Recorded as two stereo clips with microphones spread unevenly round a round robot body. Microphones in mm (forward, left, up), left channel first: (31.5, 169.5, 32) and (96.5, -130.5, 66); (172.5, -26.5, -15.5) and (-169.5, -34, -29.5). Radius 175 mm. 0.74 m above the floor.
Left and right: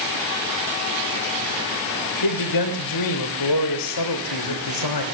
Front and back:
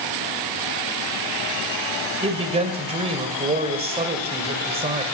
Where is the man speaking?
110° left, 2.5 m.